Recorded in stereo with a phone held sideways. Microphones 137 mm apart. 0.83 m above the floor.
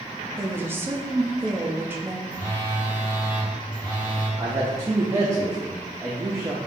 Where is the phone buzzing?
35° left (ahead or behind), 1.4 m.